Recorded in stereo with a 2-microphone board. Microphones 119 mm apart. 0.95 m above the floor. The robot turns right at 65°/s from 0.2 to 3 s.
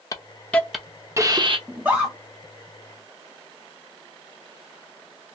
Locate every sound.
0.1 s a hiss: 30° left (ahead or behind), 0.6 m; by 1.6 s 50° right (ahead or behind), 0.6 m
1.7 s a scream: 20° right (ahead or behind), 0.8 m; by 2.1 s centre (ahead or behind), 0.8 m